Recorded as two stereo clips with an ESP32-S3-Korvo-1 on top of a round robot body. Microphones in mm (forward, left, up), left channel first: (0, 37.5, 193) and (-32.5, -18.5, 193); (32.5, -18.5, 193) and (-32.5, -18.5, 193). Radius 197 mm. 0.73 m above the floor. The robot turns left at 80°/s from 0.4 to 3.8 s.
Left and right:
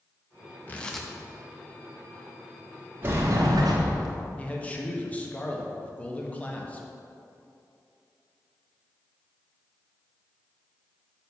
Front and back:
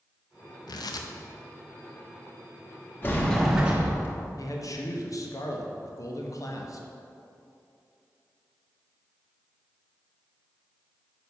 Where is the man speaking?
5° right, 1.4 m.